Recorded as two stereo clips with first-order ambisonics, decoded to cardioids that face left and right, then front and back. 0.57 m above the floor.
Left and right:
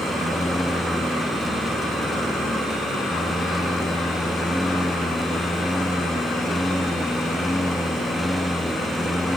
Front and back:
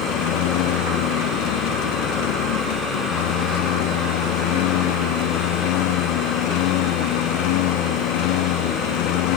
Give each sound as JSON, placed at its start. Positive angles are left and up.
{"t": 0.0, "sound": "a lawn mower", "azimuth_deg": 0}